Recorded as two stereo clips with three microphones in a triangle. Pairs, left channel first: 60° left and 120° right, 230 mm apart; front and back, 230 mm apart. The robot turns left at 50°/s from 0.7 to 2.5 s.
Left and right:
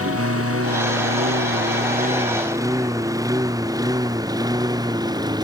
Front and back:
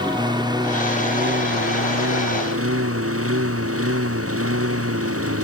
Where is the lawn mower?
110° right; by 5.4 s 165° left.